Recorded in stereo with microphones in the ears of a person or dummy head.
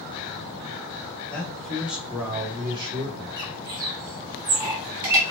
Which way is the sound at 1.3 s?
10° left (ahead or behind).